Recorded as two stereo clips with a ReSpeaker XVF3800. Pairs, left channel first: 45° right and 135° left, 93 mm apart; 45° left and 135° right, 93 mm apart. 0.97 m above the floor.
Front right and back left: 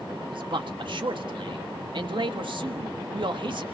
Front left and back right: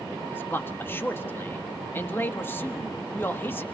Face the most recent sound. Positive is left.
turn(degrees=110)